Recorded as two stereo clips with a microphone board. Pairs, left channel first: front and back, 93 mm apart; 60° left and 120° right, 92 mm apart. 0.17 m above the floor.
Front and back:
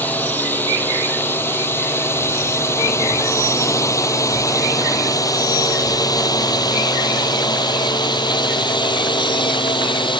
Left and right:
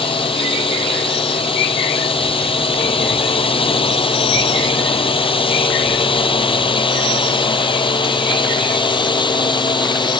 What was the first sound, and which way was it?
A drone, 70° left.